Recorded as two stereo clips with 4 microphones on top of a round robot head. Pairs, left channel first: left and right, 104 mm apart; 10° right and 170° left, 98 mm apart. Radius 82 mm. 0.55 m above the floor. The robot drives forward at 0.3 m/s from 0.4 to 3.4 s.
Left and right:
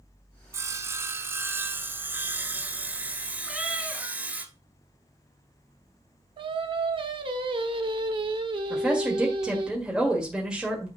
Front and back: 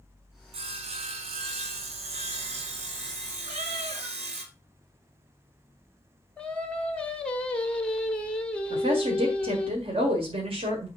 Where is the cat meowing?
175° right, 2 m.